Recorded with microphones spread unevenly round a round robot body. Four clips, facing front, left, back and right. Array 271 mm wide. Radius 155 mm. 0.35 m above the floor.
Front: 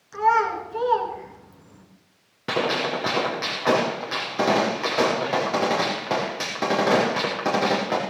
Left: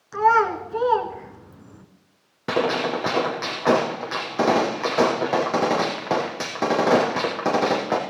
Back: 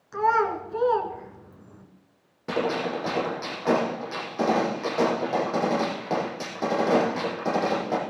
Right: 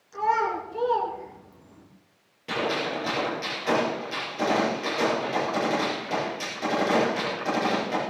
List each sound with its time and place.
0.1 s a child speaking: 90° left, 3.5 m
2.5 s a gunshot: 60° left, 6 m